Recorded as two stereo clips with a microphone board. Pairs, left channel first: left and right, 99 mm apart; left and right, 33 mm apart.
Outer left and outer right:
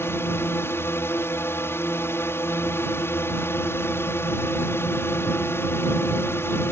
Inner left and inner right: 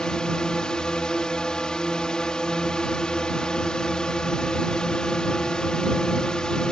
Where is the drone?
25° left (ahead or behind).